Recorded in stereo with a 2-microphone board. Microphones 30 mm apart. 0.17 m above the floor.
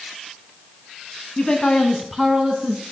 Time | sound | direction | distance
1.4 | a man speaking | 35° left (ahead or behind) | 1.3 m